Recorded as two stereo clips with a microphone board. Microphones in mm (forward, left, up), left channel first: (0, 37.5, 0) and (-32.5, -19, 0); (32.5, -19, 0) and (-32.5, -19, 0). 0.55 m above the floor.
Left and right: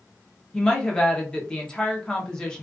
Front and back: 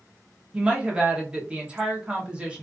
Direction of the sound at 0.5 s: 125° left.